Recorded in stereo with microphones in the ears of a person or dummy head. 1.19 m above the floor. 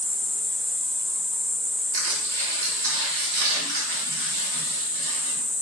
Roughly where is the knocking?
I don't hear knocking.